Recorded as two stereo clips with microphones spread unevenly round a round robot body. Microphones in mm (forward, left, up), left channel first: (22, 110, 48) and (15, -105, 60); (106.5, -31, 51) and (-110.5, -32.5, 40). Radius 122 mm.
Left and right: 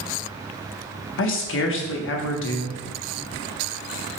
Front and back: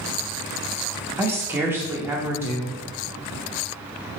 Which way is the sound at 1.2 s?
100° left.